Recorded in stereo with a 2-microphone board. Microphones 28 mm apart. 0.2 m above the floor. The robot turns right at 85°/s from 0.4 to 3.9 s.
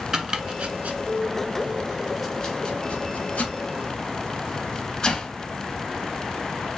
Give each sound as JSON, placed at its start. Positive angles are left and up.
{"t": 0.1, "sound": "chopping", "side_deg": -30, "distance_m": 0.7}